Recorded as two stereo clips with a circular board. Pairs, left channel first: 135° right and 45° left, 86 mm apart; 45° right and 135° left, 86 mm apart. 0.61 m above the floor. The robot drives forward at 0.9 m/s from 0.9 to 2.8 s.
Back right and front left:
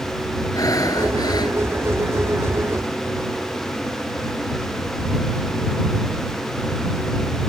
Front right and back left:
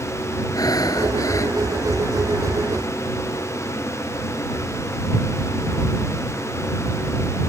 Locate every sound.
0.6 s breathing: 90° right; by 1.6 s 100° right